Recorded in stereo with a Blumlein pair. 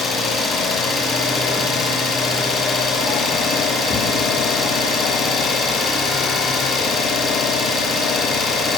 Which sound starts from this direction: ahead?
An engine running, at 0.0 s.